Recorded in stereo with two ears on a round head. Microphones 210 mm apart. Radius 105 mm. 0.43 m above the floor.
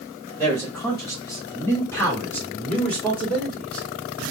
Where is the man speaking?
15° left (ahead or behind), 1.4 m; by 3.9 s 5° left (ahead or behind), 1.8 m.